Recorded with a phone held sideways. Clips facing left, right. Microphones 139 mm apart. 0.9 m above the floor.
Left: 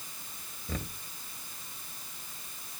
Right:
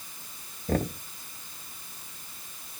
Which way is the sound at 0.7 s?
55° right (ahead or behind).